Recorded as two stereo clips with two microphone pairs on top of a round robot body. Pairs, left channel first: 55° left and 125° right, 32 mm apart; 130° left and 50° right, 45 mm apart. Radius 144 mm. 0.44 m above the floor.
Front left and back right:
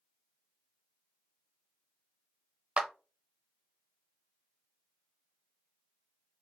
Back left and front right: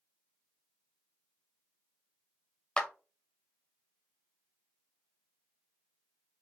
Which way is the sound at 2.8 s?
170° right.